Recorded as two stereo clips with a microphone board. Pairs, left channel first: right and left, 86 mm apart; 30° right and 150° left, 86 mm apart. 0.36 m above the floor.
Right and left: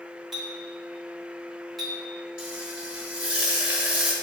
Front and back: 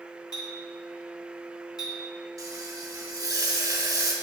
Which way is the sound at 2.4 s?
165° left.